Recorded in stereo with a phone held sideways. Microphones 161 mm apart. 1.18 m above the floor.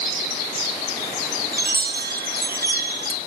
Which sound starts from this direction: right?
A chime, at 1.5 s.